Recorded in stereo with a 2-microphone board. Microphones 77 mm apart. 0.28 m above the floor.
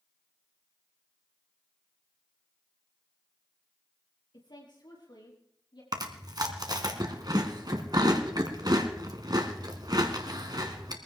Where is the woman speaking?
80° left, 5.5 m; by 5.8 s 70° left (ahead or behind), 7 m.